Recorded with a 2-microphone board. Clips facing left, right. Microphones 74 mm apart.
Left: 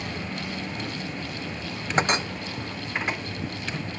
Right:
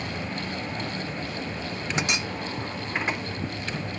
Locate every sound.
2.0 s a clink: 40° left (ahead or behind)